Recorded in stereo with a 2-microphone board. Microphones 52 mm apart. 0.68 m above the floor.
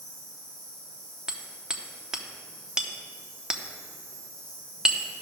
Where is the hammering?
10° right (ahead or behind), 0.9 m.